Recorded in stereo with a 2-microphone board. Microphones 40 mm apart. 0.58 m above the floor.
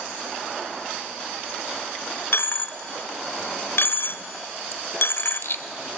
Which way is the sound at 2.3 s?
80° left.